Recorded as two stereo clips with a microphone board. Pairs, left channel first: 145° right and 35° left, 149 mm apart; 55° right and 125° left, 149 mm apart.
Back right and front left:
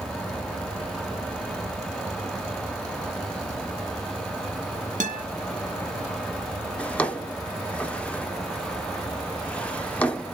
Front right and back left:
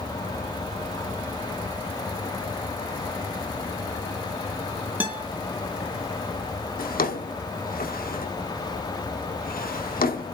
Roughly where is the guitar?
Ahead left.